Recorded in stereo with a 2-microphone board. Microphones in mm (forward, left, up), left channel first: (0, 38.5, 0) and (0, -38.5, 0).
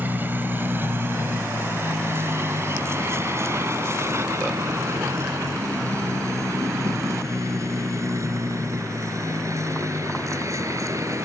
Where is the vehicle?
30° right (ahead or behind); by 11.2 s 45° right (ahead or behind).